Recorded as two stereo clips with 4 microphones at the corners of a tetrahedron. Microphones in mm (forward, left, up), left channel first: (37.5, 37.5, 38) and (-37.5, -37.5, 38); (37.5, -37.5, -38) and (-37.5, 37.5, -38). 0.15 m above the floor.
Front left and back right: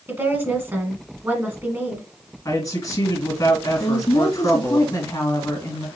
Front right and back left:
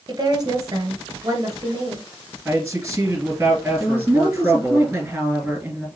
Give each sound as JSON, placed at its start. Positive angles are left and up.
{"t": 0.1, "sound": "a woman speaking", "azimuth_deg": 165, "distance_m": 1.5}
{"t": 2.5, "sound": "a man speaking", "azimuth_deg": 80, "distance_m": 1.8}
{"t": 3.8, "sound": "a woman speaking", "azimuth_deg": 80, "distance_m": 1.8}